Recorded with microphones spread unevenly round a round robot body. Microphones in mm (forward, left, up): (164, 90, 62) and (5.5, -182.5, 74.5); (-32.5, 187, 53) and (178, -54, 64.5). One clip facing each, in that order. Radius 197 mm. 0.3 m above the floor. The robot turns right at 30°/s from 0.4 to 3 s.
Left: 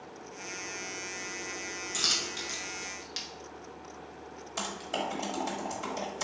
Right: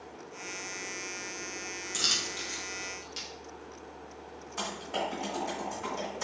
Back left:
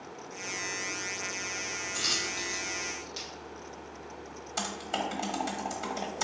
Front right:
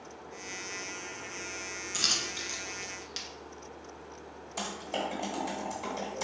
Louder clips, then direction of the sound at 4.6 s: Right 1 dB, even; 75° left.